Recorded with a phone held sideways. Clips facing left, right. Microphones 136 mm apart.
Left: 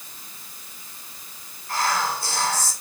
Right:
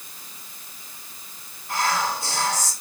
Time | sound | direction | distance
1.7 | whispering | 20° right (ahead or behind) | 3 m